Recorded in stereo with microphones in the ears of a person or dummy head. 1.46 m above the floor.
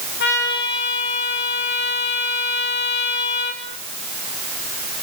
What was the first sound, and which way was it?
A trumpet, 60° left (ahead or behind).